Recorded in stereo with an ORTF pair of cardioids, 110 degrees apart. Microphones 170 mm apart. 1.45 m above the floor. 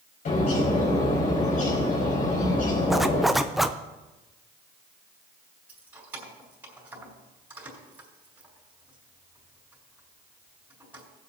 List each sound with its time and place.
0.2 s a bird: 55° left, 4 m
2.9 s a zipper: straight ahead, 0.6 m
5.7 s keys jangling: 10° right, 4 m